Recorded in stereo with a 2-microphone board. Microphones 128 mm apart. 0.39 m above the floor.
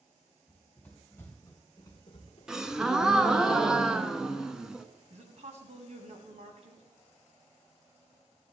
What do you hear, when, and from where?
0.5 s running footsteps: 5° left (ahead or behind), 4 m; by 3.4 s 80° left, 2.5 m
2.5 s a gasp: 5° right (ahead or behind), 0.7 m
5.1 s a woman speaking: 60° right (ahead or behind), 2 m